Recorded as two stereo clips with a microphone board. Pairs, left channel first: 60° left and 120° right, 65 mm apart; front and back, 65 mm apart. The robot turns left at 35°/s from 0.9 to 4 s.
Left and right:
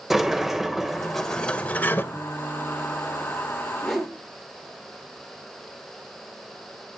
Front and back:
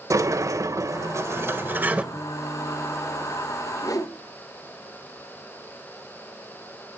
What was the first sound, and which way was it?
A sliding door, 155° left.